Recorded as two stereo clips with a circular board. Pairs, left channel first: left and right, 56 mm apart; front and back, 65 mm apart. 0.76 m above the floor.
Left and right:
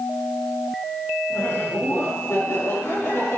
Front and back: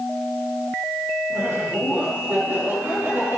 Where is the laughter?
125° left, 7 m.